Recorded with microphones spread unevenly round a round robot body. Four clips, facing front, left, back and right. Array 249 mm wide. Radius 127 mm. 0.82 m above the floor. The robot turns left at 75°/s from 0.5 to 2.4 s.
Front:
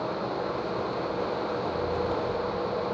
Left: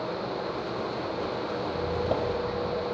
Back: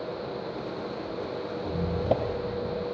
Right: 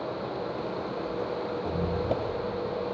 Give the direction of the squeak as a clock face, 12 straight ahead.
5 o'clock.